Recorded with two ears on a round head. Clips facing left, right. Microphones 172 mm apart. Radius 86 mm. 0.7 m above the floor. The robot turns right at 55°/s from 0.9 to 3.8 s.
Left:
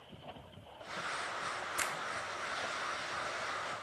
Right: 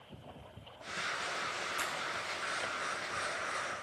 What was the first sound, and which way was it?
A finger snap, 20° left (ahead or behind).